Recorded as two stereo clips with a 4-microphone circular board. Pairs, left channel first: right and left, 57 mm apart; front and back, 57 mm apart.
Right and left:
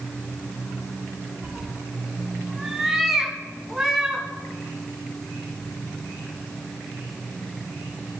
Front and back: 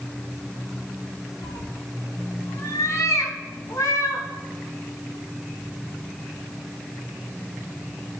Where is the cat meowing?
15° left, 0.7 m; by 4.2 s straight ahead, 2 m.